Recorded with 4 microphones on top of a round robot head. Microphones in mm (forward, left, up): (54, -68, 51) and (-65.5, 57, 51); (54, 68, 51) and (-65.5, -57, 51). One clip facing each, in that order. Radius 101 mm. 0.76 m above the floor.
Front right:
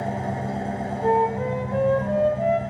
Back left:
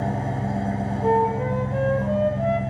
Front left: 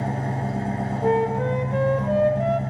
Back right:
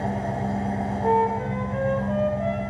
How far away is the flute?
About 0.5 m.